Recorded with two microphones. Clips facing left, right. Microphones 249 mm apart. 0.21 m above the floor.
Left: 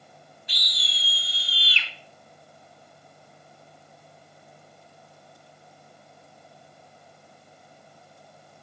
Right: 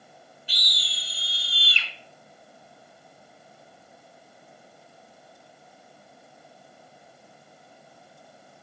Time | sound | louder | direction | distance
0.5 | a scream | even | 30° right (ahead or behind) | 1.4 m